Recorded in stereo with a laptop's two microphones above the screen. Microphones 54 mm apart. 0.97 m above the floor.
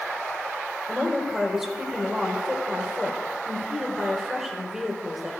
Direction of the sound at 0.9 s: 5° right (ahead or behind).